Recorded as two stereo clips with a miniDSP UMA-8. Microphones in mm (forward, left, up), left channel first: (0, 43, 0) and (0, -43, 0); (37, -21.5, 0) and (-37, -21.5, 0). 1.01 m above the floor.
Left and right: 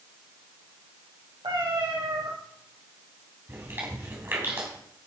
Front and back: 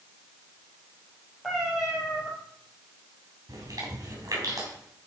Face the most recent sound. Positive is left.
turn(degrees=-150)